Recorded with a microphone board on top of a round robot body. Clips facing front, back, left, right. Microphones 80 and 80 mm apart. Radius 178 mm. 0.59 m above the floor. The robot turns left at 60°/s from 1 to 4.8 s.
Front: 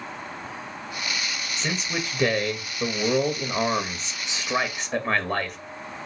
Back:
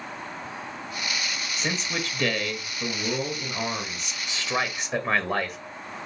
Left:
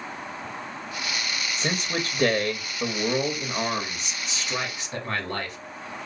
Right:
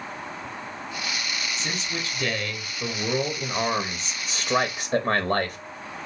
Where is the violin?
No violin in this recording.